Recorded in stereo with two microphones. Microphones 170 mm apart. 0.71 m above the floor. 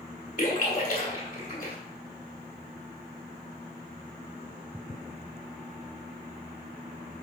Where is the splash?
55° left (ahead or behind), 2 m.